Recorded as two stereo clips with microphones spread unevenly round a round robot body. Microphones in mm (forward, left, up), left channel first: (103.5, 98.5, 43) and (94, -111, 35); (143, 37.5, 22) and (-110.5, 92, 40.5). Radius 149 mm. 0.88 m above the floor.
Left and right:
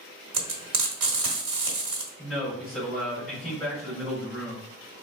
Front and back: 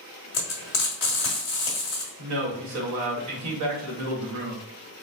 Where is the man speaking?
Straight behind, 1.4 m.